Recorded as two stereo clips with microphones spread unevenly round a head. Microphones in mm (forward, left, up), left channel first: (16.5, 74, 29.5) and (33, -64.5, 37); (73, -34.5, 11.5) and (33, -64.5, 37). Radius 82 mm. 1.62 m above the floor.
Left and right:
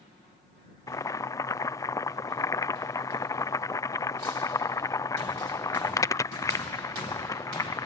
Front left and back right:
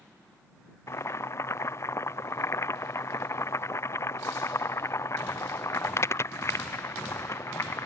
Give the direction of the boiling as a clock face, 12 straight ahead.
11 o'clock.